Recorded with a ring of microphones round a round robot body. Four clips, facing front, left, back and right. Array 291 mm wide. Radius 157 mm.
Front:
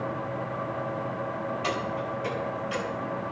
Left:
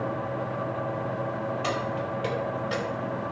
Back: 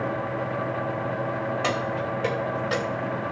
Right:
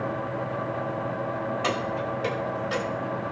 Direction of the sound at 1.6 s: 155° right.